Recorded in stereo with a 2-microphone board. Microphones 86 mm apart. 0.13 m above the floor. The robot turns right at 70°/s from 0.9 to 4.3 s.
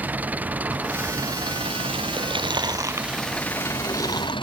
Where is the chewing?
90° right; by 4.3 s 60° left (ahead or behind).